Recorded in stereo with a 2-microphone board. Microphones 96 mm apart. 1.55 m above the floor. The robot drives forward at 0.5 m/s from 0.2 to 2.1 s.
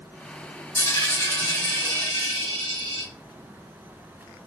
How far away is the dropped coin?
About 1.5 m.